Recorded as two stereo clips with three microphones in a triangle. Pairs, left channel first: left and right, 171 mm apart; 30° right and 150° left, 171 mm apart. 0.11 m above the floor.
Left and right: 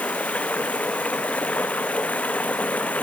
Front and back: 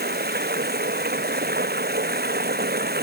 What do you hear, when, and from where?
0.0 s running water: 170° left